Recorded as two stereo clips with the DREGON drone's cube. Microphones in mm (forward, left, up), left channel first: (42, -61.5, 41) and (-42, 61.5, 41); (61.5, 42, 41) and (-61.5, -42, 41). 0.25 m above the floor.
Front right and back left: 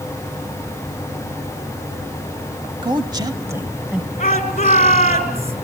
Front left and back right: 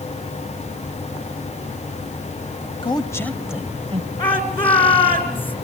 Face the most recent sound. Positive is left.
turn(degrees=-15)